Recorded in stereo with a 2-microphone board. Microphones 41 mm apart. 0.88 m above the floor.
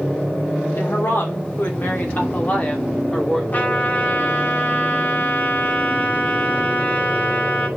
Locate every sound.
0.8 s a woman speaking: 70° left (ahead or behind), 2.5 m; by 3.4 s 20° left (ahead or behind), 2 m
3.5 s a trumpet: 45° left (ahead or behind), 2 m